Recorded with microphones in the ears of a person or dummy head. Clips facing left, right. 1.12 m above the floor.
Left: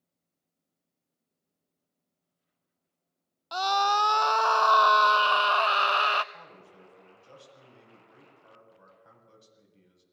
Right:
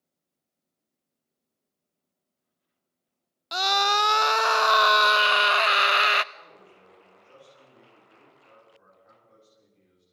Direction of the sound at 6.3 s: 55° left (ahead or behind).